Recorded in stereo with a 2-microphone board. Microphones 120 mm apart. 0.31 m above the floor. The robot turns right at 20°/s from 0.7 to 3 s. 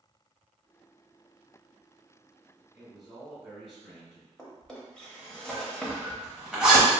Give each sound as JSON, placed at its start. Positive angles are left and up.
{"t": 2.7, "sound": "a man speaking", "side_deg": -5, "distance_m": 1.9}
{"t": 4.4, "sound": "a drawer", "side_deg": 5, "distance_m": 0.7}
{"t": 5.9, "sound": "a zipper", "side_deg": -5, "distance_m": 0.9}